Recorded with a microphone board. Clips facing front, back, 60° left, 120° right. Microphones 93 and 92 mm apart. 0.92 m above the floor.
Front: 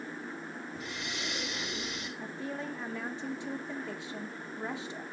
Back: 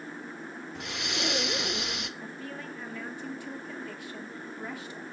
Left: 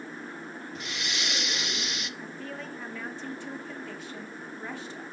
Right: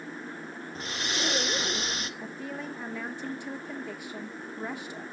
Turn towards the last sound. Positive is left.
turn(degrees=-55)